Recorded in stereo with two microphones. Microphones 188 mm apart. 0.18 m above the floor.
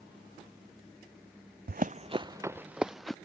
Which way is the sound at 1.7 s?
55° right (ahead or behind).